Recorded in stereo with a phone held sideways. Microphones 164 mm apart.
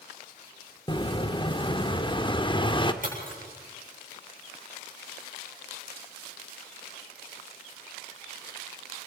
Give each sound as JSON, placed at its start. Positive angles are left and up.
{"t": 0.9, "sound": "an explosion", "side_deg": 30, "distance_m": 1.1}
{"t": 3.0, "sound": "breaking glass", "side_deg": -55, "distance_m": 8.0}